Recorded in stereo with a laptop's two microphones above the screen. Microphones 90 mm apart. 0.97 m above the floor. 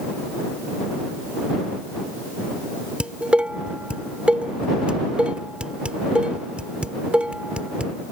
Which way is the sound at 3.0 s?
10° right (ahead or behind).